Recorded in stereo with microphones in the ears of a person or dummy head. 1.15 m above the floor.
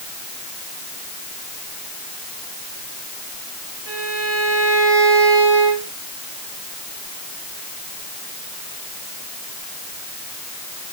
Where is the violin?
75° right (ahead or behind), 5.5 m.